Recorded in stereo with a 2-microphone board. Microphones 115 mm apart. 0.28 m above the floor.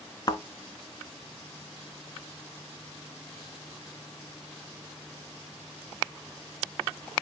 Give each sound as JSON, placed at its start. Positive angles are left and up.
{"t": 0.3, "sound": "a thud", "side_deg": 35, "distance_m": 1.0}